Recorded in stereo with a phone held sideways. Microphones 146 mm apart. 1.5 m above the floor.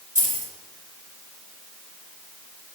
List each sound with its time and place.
0.1 s keys jangling: 60° right (ahead or behind), 2.5 m